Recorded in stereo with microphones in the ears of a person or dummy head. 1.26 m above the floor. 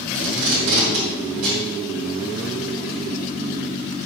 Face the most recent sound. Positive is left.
turn(degrees=-70)  # may be behind; listen again after turning